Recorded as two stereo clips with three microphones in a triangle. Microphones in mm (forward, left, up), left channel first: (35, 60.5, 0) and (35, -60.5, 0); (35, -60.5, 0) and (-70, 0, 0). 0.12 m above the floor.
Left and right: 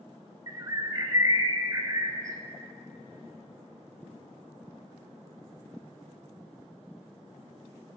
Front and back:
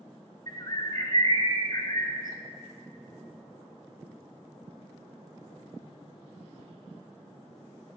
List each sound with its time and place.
0.5 s a bird: 50° right, 0.6 m